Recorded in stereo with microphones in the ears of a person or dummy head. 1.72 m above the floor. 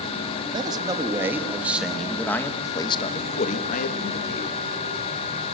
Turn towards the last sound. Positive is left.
turn(degrees=60)  # may be behind; listen again after turning